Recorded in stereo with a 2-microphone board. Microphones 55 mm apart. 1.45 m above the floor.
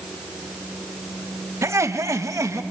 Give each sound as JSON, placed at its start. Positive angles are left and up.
{"t": 1.6, "sound": "laughter", "side_deg": -65, "distance_m": 1.1}